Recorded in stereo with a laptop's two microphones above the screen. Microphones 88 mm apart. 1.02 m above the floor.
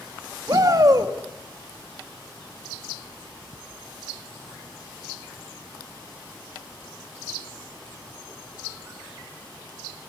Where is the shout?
45° right (ahead or behind), 1.9 m.